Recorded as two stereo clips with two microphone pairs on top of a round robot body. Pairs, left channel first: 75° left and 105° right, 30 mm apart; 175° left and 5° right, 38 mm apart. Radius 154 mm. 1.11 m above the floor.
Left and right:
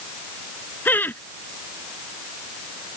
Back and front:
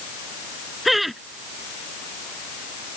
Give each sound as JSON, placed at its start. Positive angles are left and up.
{"t": 0.8, "sound": "laughter", "azimuth_deg": 85}